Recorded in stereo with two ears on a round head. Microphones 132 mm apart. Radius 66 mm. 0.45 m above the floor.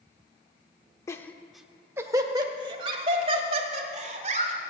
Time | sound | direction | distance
1.1 | laughter | 20° left (ahead or behind) | 0.8 m